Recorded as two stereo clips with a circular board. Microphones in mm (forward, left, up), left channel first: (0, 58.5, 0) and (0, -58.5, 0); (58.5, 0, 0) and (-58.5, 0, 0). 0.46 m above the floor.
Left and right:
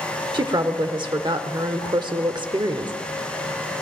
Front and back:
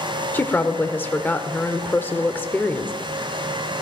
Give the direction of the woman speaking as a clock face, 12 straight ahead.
2 o'clock.